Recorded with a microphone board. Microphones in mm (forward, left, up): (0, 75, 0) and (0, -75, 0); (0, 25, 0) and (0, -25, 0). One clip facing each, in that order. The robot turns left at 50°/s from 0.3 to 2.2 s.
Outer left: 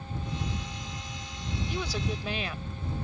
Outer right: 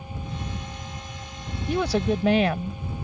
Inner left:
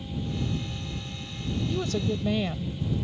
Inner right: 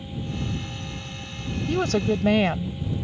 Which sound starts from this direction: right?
A woman speaking, at 1.7 s.